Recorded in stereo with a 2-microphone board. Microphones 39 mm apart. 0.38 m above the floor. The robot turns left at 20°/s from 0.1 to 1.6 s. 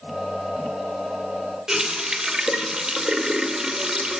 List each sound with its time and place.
1.7 s a running tap: 15° right (ahead or behind), 0.5 m